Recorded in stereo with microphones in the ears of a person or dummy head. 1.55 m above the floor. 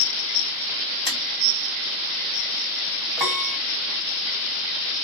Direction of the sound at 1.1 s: 35° left (ahead or behind).